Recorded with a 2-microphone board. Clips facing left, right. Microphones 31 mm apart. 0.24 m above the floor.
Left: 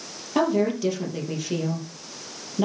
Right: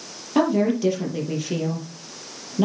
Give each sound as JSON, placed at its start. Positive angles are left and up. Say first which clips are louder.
{"t": 0.3, "sound": "a woman speaking", "louder": "right 2 dB", "side_deg": -5, "distance_m": 5.0}